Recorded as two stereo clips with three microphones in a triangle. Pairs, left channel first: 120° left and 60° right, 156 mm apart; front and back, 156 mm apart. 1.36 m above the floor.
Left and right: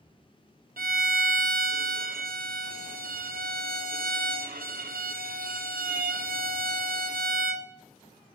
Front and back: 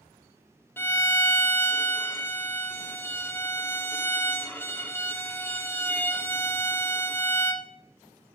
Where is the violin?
80° right, 0.6 m.